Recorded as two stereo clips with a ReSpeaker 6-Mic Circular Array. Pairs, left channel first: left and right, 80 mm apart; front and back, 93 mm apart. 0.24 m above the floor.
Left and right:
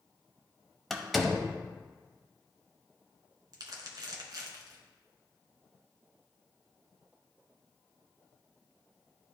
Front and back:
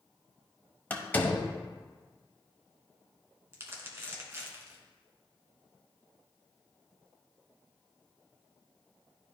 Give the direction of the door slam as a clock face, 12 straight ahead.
12 o'clock.